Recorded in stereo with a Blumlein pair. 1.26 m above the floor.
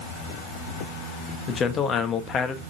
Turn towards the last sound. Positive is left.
turn(degrees=25)